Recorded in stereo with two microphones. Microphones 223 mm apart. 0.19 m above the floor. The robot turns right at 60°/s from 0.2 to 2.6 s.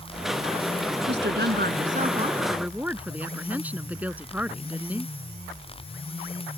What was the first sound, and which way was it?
A woman speaking, 100° right.